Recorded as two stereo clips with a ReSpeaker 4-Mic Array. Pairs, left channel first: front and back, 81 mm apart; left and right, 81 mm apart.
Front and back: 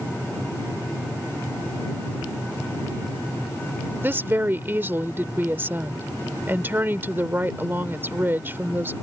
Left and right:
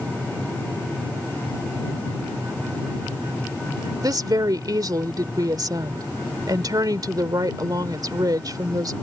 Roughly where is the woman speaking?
Behind right.